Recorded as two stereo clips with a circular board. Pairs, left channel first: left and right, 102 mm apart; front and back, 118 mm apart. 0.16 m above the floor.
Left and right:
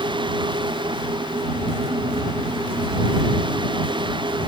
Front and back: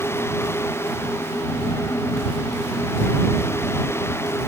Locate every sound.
Only background noise.